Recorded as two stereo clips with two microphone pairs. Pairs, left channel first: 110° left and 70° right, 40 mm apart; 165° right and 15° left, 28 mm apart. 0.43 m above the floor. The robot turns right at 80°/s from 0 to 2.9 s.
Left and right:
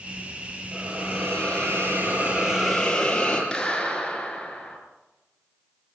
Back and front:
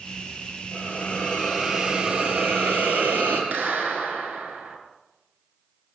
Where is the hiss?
140° right, 7.5 m; by 3.4 s 35° left, 7.5 m.